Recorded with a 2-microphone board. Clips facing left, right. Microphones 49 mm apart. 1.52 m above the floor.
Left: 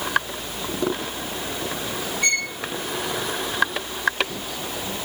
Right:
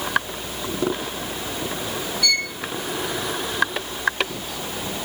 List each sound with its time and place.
2.2 s a violin: 40° left (ahead or behind), 1.3 m